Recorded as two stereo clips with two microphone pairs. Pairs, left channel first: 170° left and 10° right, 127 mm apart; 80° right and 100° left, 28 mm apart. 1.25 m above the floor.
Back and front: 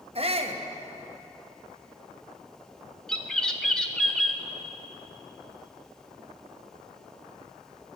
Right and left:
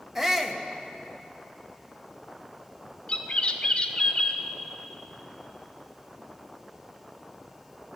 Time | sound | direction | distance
0.1 | a shout | 20° left | 1.0 m
3.1 | a bird | 110° right | 0.7 m